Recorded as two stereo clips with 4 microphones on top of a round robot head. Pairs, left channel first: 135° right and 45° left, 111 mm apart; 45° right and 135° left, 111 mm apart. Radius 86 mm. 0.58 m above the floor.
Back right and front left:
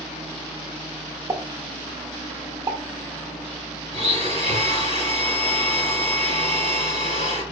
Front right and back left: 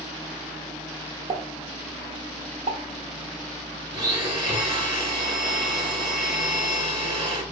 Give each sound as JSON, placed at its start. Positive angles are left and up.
{"t": 1.3, "sound": "a pop", "azimuth_deg": 110, "distance_m": 0.8}
{"t": 3.9, "sound": "a blender", "azimuth_deg": -175, "distance_m": 2.0}